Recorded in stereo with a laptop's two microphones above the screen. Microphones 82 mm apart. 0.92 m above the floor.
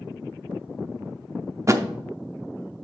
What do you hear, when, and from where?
1.7 s a thud: 35° right (ahead or behind), 0.6 m